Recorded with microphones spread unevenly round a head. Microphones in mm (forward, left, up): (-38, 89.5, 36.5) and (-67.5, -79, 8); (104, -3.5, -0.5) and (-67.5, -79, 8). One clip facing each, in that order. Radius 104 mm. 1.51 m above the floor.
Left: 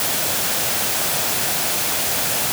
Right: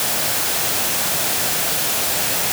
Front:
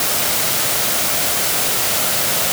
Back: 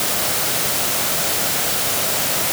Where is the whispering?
I don't hear whispering.